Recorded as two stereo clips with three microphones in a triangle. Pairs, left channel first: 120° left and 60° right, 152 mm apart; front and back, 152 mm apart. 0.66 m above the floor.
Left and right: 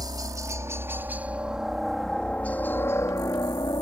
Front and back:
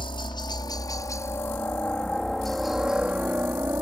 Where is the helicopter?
20° right; by 3.8 s 125° left.